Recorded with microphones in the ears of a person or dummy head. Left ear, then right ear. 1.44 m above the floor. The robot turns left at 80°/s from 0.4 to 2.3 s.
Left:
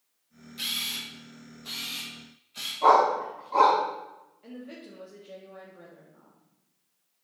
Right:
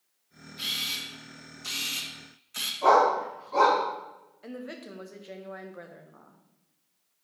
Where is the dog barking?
20° left (ahead or behind), 5.5 m.